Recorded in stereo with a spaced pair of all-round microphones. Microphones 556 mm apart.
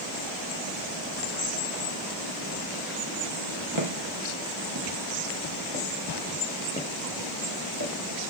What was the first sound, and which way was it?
Footsteps, 55° right (ahead or behind).